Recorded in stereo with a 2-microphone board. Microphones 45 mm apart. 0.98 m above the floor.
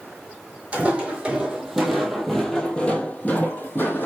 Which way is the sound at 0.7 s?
30° right (ahead or behind).